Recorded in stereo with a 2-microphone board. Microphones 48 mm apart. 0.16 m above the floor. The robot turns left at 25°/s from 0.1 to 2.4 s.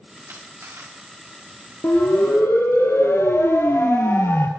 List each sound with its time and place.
0.3 s a camera shutter: 60° right (ahead or behind), 6.5 m; by 0.9 s 75° right (ahead or behind), 6.5 m
1.8 s a siren: 60° left (ahead or behind), 4 m; by 4.5 s 55° left (ahead or behind), 2.5 m